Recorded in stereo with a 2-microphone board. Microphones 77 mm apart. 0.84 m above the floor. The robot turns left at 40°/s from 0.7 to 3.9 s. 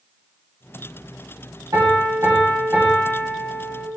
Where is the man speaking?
I don't hear a man speaking.